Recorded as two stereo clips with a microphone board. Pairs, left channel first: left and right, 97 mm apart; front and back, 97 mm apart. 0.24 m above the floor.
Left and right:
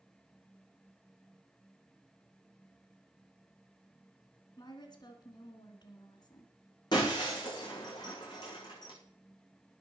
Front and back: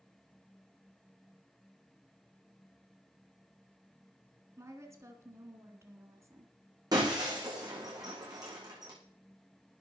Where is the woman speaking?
125° left, 2.5 m.